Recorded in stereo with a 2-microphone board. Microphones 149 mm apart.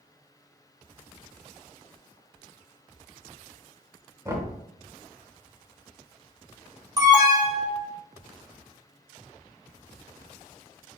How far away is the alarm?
About 1.3 m.